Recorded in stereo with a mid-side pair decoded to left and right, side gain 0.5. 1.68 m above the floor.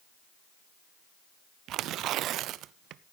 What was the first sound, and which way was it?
Tearing paper, 70° right.